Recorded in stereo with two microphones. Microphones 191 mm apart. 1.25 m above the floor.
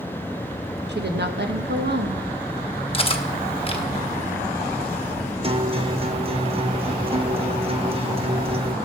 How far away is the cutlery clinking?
About 0.9 m.